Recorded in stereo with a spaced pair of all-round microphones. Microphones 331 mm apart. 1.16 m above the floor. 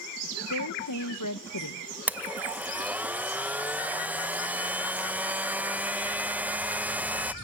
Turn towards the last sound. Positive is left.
turn(degrees=-5)  # may be behind; listen again after turning